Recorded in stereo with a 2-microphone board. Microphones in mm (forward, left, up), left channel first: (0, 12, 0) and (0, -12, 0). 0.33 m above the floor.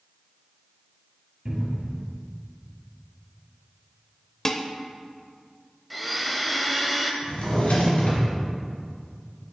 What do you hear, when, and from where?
1.4 s a cupboard door: 35° right (ahead or behind), 2.5 m
4.5 s dishes clattering: 25° left (ahead or behind), 0.6 m
5.9 s a blender: centre (ahead or behind), 0.7 m
7.2 s a drawer: 60° left (ahead or behind), 3 m